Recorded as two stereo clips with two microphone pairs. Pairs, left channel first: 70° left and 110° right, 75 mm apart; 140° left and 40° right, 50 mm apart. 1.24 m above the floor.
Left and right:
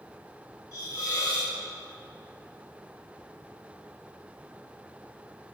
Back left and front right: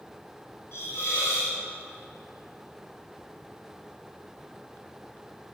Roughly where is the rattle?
I don't hear a rattle.